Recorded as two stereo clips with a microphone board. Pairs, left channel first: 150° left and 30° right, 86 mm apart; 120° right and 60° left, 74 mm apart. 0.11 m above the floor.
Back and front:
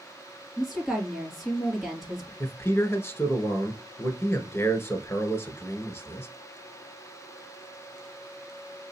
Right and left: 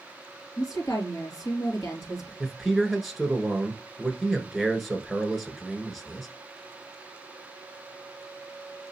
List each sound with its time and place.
0.6 s a woman speaking: 115° right, 2.5 m
2.4 s a man speaking: 150° left, 1.3 m